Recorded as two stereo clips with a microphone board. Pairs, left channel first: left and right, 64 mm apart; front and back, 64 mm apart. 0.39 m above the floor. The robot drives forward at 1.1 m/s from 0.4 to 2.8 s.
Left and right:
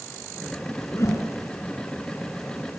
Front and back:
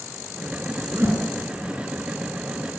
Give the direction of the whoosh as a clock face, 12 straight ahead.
8 o'clock.